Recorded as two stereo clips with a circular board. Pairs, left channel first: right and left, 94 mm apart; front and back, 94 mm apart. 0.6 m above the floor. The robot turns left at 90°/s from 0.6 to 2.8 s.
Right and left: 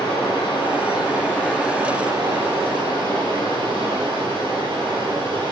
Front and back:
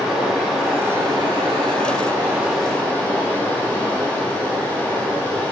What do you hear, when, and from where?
0.0 s running water: 90° right, 2.5 m; by 5.5 s 75° left, 2.5 m